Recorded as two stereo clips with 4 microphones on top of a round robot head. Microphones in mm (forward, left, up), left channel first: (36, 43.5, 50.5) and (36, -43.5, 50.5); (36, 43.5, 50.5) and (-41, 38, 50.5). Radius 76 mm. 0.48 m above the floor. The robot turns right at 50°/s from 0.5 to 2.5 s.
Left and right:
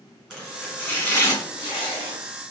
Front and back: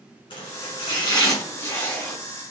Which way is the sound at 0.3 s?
5° right.